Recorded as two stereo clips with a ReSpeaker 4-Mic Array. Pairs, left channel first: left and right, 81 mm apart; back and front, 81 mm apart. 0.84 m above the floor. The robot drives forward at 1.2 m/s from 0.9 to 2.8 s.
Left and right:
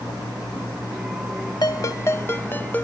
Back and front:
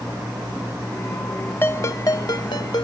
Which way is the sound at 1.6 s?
120° left.